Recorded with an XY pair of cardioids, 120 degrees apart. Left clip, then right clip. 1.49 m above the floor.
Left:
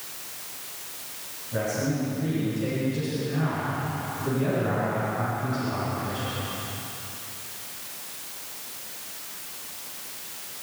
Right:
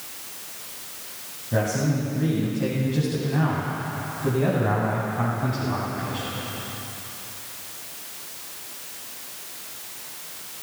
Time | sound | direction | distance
1.5 | a man speaking | 60° right | 8 m